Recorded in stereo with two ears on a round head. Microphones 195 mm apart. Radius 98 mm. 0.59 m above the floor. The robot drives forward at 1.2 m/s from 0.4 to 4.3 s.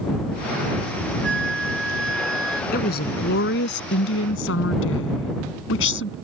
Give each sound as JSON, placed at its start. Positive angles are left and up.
{"t": 1.2, "sound": "a flute", "side_deg": -55}
{"t": 2.7, "sound": "a woman speaking", "side_deg": 45}